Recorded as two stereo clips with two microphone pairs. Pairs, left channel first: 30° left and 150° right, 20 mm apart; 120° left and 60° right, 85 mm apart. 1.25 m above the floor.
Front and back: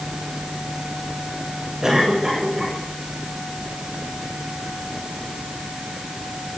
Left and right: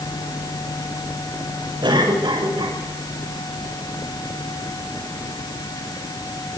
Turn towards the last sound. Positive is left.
turn(degrees=-90)